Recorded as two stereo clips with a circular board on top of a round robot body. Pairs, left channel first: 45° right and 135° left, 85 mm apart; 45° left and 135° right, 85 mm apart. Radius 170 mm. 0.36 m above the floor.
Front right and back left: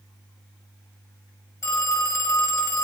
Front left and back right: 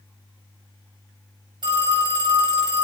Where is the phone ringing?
100° right, 1.4 m.